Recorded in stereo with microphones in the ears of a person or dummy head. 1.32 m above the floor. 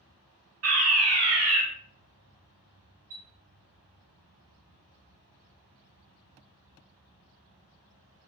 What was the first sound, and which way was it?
A fire alarm, 65° right (ahead or behind).